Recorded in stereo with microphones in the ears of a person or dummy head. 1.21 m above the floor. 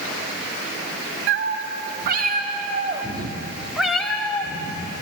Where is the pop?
I don't hear a pop.